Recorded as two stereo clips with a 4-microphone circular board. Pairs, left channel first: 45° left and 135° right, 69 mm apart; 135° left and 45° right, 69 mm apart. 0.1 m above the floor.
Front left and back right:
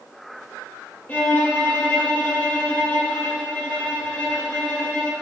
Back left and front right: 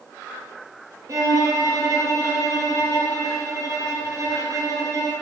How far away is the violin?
About 2.5 m.